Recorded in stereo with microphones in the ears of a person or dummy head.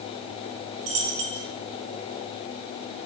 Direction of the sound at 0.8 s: 40° right (ahead or behind).